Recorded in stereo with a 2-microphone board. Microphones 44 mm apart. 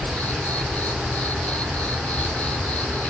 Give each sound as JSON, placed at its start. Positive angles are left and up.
{"t": 0.0, "sound": "an insect", "side_deg": 35, "distance_m": 1.6}